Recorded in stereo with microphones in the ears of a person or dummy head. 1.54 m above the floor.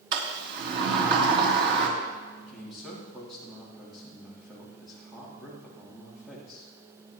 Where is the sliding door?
50° right (ahead or behind), 3 m.